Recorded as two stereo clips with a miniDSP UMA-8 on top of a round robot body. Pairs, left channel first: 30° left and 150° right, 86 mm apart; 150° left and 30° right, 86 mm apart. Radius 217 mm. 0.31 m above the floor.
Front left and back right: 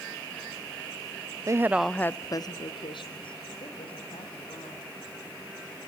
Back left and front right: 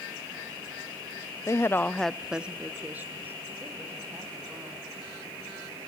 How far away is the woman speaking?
About 1.0 m.